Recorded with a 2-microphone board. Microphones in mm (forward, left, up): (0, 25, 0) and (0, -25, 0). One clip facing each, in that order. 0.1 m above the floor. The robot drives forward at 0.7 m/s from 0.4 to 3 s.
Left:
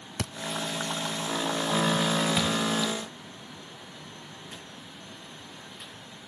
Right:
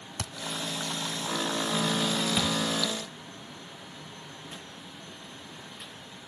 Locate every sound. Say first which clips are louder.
0.2 s a thud: left 4 dB; 40° left (ahead or behind), 0.5 m
2.4 s a thud: left 1 dB; 15° left (ahead or behind), 4.5 m